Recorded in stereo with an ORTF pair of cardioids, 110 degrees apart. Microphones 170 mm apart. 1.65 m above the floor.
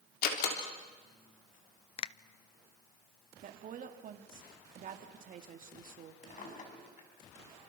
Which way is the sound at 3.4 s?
55° right.